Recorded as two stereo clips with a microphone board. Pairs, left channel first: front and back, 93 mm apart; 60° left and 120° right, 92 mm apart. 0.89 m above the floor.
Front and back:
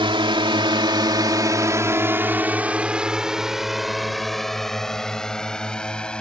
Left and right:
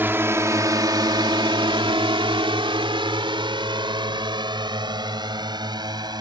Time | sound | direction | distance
0.0 | a drone | 175° left | ?